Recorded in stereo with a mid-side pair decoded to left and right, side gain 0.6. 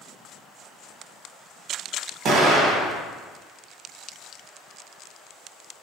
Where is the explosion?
55° right, 1.4 m.